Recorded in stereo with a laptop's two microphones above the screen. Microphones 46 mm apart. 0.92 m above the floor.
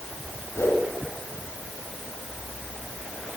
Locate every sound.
0.6 s a whoosh: 80° left, 5 m